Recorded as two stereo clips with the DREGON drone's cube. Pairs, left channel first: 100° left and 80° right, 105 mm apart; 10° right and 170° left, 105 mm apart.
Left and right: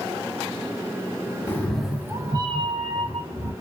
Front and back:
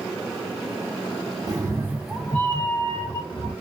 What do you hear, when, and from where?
1.5 s a cat meowing: 160° left, 0.6 m; by 3.5 s 55° right, 1.3 m